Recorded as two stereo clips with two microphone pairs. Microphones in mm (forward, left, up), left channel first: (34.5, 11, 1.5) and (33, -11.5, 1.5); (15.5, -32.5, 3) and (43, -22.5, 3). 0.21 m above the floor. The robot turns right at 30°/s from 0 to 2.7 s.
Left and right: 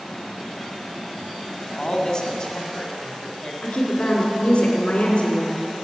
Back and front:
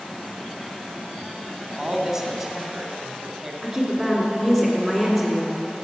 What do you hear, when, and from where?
1.8 s a man speaking: 70° left, 1.5 m; by 3.5 s 95° left, 1.5 m
3.6 s a woman speaking: 115° left, 2 m